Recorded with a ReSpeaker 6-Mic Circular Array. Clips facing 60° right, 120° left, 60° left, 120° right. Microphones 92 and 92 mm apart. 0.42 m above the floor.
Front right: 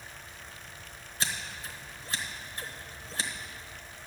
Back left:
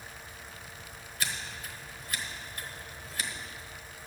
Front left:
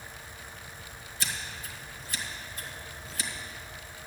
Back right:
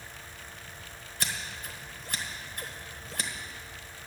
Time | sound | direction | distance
1.2 | scissors | 115° right | 1.1 m